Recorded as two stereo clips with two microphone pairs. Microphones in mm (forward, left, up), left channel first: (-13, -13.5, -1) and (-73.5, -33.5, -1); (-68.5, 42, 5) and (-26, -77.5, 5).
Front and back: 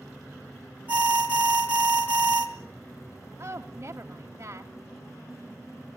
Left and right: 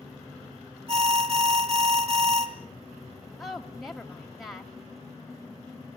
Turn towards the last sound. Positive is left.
turn(degrees=-160)